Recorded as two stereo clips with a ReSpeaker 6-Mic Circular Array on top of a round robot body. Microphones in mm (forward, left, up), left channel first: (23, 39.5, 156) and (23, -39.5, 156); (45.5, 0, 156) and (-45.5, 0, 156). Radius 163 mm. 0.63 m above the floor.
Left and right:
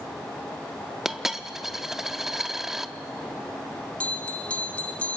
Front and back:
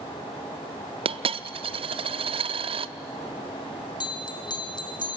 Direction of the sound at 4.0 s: 20° left.